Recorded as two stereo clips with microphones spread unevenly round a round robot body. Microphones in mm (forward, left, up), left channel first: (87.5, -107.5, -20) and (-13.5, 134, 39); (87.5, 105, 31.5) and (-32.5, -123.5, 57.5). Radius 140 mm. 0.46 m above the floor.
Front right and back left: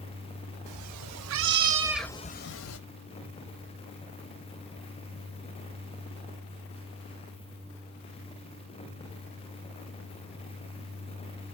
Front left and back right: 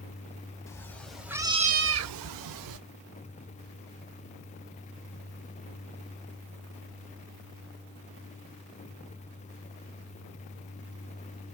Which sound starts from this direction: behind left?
A cat meowing, at 0.7 s.